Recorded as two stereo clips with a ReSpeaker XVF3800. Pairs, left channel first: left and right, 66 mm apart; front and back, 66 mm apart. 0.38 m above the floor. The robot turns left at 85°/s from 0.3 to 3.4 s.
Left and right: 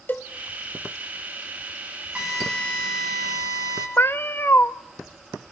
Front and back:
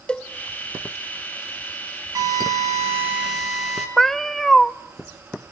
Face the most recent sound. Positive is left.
turn(degrees=80)